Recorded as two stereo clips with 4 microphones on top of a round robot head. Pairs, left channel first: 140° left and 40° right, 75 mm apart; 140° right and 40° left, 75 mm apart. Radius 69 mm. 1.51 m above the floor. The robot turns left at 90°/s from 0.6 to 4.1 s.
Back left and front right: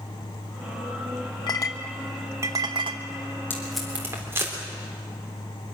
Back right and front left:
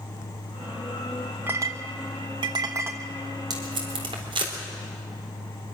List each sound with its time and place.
1.5 s a clink: 105° left, 1.0 m; by 3.0 s 35° right, 1.0 m
3.5 s tape being pulled: 75° left, 3.5 m; by 4.5 s 20° left, 3.5 m